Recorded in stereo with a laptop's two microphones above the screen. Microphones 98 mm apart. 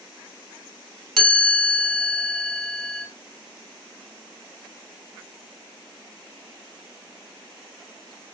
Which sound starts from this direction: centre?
A chime, at 1.2 s.